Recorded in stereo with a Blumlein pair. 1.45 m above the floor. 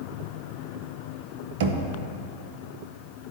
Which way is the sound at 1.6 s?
55° right.